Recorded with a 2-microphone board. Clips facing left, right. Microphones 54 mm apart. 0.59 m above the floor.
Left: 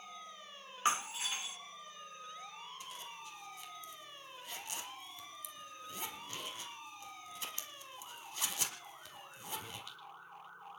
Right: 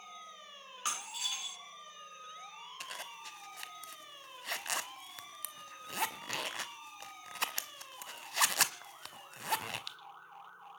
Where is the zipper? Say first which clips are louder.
Right 3 dB; 85° right, 1.2 m.